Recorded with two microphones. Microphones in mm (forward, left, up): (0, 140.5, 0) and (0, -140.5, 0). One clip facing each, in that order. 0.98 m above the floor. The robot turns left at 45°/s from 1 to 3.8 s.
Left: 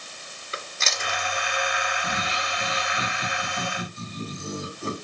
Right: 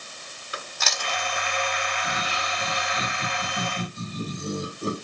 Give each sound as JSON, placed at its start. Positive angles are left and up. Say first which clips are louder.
{"t": 0.5, "sound": "chewing", "louder": "even", "side_deg": 30, "distance_m": 2.5}
{"t": 1.9, "sound": "laughter", "louder": "left 1 dB", "azimuth_deg": 40, "distance_m": 7.0}